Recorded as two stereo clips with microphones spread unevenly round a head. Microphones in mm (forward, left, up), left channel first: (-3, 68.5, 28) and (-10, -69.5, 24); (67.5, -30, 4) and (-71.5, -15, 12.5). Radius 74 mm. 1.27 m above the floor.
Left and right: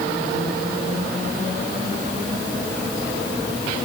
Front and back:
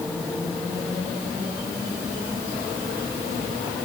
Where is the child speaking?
No child speaking in this recording.